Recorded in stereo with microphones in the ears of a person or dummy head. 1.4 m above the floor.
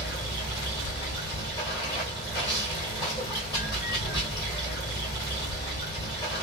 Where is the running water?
20° left (ahead or behind), 1.5 m.